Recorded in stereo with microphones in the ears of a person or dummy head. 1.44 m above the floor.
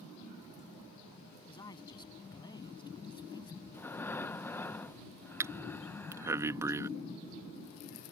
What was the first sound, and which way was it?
A man speaking, 20° left (ahead or behind).